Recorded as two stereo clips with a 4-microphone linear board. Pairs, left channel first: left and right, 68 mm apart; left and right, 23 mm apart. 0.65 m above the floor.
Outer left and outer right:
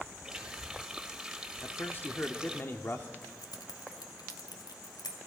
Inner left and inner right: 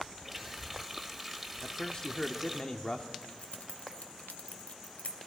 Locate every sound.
0.2 s a running tap: 5° right (ahead or behind), 1.9 m
1.6 s a man speaking: 30° left (ahead or behind), 1.1 m
3.2 s keys jangling: 75° left (ahead or behind), 2 m